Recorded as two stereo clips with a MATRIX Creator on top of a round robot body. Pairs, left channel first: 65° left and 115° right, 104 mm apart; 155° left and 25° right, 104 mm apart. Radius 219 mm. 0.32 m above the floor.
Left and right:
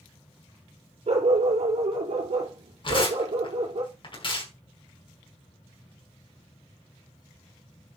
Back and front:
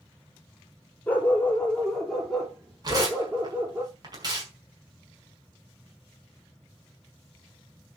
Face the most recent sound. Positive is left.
turn(degrees=30)